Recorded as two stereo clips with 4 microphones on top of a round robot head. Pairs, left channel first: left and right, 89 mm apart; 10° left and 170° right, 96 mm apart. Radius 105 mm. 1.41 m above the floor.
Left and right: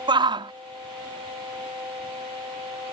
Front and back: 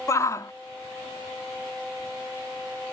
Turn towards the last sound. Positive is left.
turn(degrees=-55)